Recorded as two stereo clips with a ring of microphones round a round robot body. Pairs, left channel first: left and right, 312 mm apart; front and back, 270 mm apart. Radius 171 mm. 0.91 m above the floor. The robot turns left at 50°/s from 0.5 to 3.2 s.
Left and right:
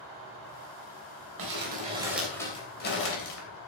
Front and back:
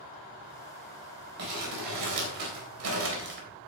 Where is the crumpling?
135° right, 3.5 m; by 3.5 s 130° left, 3.5 m.